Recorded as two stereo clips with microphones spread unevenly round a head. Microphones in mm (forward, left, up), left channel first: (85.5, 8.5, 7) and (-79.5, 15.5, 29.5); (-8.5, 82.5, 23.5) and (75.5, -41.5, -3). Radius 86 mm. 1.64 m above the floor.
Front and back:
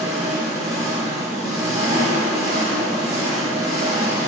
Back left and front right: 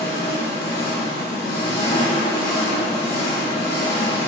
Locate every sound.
0.0 s an engine running: 110° left, 1.7 m